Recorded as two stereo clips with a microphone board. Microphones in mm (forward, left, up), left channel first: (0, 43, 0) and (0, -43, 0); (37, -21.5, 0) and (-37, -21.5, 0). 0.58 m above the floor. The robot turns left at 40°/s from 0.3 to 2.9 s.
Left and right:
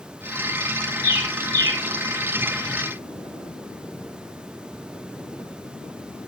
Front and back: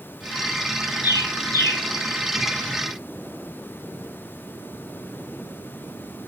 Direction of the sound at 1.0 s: 15° right.